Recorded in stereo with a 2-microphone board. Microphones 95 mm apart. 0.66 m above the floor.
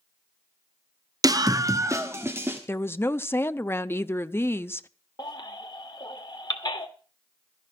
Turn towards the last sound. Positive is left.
turn(degrees=45)  # may be behind; listen again after turning